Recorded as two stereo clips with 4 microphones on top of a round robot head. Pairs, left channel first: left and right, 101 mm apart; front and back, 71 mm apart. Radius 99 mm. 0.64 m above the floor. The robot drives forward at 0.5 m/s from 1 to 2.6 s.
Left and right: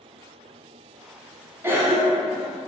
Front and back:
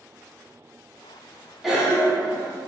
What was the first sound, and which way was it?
A cough, 100° right.